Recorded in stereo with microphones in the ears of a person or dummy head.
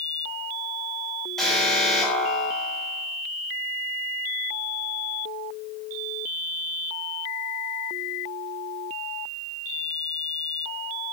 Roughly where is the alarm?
Centre.